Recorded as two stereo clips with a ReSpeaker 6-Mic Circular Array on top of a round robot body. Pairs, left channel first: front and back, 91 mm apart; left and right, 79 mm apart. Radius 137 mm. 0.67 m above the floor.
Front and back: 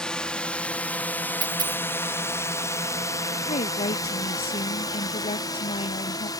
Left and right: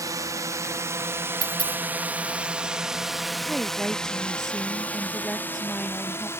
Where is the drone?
80° right; by 6.4 s 35° left.